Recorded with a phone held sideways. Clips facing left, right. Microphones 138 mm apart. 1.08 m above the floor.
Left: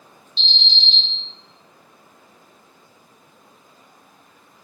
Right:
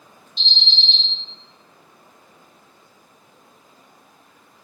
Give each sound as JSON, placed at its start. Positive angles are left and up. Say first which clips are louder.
{"t": 0.4, "sound": "an alarm", "louder": "even", "side_deg": -50, "distance_m": 1.8}